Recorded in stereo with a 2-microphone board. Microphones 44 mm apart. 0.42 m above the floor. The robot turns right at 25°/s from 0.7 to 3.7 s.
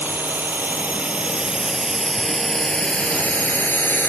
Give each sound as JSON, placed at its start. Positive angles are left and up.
{"t": 0.0, "sound": "a drone", "side_deg": -45}